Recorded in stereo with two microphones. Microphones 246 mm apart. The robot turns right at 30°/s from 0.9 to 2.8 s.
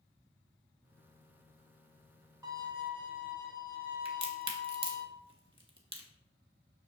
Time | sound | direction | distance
2.4 | a violin | 15° right (ahead or behind) | 0.8 m
4.0 | a crack | 55° right (ahead or behind) | 0.7 m